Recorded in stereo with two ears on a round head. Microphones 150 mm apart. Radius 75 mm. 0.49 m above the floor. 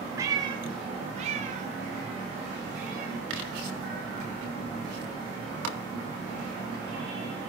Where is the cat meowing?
15° right (ahead or behind), 0.8 m; by 7.0 s 60° right (ahead or behind), 5 m.